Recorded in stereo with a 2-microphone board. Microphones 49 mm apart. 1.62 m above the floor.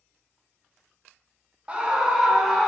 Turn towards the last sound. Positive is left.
turn(degrees=-5)  # may be behind; listen again after turning